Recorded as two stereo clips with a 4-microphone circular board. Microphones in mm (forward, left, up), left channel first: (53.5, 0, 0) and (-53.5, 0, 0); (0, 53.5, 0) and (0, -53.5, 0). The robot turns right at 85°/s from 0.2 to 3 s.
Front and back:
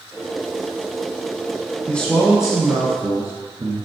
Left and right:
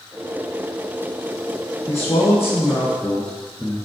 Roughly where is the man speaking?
Ahead left.